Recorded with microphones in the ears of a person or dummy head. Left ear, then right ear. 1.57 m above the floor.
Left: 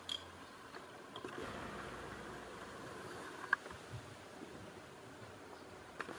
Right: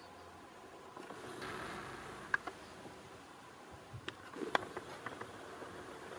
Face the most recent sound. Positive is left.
turn(degrees=-60)  # may be behind; listen again after turning